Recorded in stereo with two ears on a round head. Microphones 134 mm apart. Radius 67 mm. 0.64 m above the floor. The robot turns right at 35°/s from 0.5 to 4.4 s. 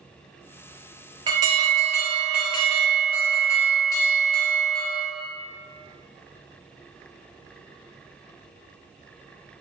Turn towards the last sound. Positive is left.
turn(degrees=55)